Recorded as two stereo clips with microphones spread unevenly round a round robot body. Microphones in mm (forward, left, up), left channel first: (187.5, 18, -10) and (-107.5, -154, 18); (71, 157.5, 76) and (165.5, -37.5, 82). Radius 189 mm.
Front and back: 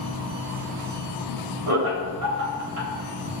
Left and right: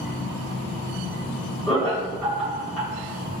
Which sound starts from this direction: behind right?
Laughter, at 1.7 s.